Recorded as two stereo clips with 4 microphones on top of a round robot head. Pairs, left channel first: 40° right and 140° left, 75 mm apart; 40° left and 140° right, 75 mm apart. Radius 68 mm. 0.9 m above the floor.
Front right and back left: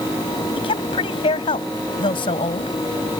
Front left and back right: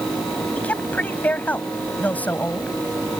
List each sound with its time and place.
0.6 s a woman speaking: 30° right